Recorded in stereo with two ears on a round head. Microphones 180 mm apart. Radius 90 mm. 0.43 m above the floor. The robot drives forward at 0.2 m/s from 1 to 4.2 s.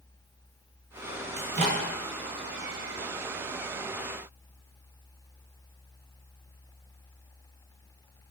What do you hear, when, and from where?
1.4 s a microwave: 35° right (ahead or behind), 0.7 m; by 1.8 s 40° right (ahead or behind), 0.7 m